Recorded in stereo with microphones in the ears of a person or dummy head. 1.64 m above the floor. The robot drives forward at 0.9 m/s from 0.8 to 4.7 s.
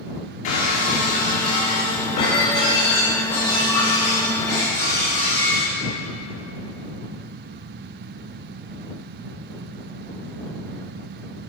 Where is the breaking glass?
45° left (ahead or behind), 2 m; by 5.7 s 15° left (ahead or behind), 5 m.